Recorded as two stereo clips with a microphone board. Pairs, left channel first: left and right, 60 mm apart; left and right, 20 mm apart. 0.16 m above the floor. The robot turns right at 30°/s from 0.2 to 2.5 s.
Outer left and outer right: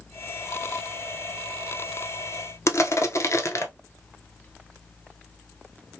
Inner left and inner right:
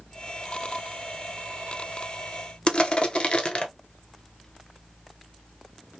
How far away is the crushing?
About 0.6 m.